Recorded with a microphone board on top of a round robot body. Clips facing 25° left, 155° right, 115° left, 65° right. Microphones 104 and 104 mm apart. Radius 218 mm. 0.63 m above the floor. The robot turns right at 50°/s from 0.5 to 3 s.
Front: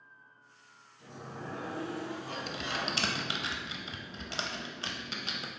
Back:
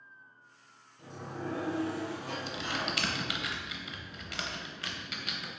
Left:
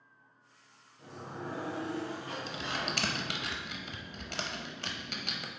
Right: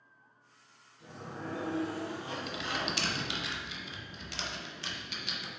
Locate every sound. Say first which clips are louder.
1.0 s a sliding door: back 4 dB, even; 160° left, 0.8 m; by 3.5 s 100° right, 0.8 m
2.5 s typing on a keyboard: even, right 1 dB; 55° left, 0.6 m; by 5.5 s 80° left, 0.6 m